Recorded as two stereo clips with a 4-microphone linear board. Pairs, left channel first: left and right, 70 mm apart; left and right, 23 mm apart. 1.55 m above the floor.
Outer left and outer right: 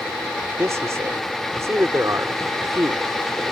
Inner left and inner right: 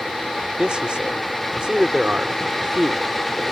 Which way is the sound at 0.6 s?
50° right (ahead or behind).